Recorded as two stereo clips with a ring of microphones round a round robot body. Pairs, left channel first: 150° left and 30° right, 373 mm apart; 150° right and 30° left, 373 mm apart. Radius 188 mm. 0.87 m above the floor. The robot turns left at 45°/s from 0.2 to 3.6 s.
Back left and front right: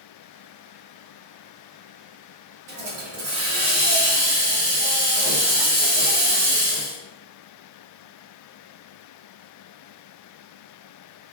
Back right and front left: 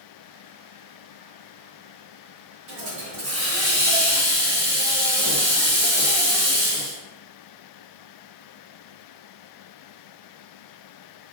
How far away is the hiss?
About 1.1 m.